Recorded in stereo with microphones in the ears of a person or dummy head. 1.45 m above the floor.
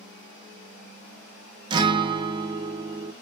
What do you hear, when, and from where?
1.7 s a guitar: 25° right (ahead or behind), 0.6 m